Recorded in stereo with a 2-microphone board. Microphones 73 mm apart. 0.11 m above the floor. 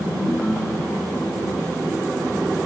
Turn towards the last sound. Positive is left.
turn(degrees=20)  # may be behind; listen again after turning